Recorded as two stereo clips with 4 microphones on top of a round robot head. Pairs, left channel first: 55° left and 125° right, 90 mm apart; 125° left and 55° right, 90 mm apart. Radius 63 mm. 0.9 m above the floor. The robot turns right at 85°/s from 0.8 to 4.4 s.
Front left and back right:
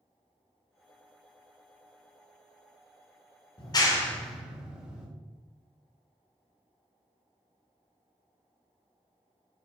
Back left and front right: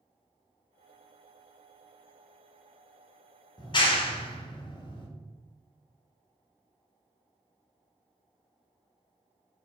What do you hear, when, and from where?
3.6 s a clap: 85° left, 1.4 m; by 5.1 s 155° left, 1.4 m